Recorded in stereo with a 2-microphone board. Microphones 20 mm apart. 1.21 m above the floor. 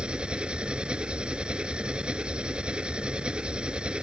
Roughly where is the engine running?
Right.